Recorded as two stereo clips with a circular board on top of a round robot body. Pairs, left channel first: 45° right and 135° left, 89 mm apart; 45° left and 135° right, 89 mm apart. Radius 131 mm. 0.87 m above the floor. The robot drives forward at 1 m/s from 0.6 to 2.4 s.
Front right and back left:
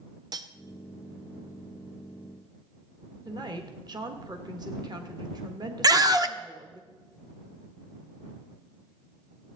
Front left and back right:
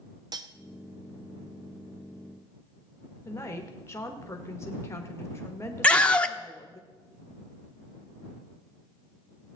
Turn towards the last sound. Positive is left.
turn(degrees=115)